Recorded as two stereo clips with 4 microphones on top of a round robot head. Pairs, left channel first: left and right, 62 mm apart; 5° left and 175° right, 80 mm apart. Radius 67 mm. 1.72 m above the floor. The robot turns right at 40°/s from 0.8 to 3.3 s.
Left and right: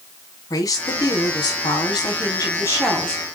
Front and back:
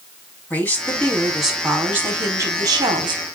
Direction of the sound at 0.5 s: 75° left.